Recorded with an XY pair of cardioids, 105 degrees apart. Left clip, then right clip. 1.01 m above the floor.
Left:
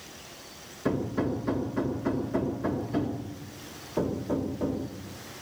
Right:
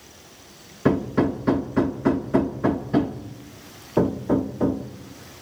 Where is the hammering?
60° right, 1.7 m.